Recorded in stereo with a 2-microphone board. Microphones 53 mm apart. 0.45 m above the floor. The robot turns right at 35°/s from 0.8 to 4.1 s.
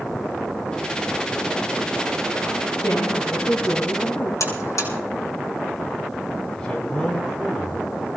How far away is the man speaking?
About 4 m.